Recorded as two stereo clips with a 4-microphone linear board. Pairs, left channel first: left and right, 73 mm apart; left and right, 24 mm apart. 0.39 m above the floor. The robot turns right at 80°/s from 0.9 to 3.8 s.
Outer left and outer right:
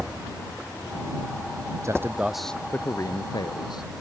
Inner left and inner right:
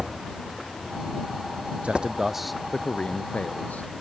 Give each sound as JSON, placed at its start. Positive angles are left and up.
{"t": 1.8, "sound": "a man speaking", "azimuth_deg": -45}